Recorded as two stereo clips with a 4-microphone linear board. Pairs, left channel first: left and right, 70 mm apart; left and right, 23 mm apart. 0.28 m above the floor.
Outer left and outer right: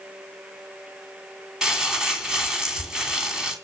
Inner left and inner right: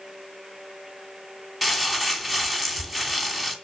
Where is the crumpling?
10° right (ahead or behind), 2.5 m.